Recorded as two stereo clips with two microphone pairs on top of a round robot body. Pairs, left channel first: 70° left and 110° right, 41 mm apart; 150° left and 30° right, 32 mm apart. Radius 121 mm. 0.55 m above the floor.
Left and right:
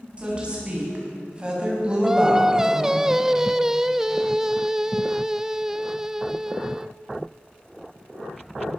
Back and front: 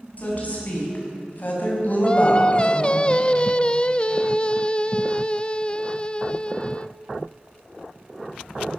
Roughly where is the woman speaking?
Behind.